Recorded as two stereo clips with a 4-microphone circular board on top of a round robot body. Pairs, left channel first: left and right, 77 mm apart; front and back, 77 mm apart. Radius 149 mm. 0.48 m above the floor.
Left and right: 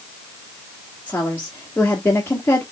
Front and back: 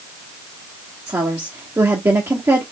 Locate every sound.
1.1 s a woman speaking: 140° left, 1.4 m